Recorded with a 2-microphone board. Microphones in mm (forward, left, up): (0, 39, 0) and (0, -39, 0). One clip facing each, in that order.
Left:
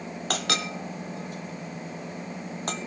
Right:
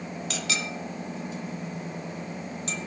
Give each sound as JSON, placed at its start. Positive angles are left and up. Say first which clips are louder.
{"t": 0.3, "sound": "a clink", "louder": "left 4 dB", "side_deg": 55, "distance_m": 1.6}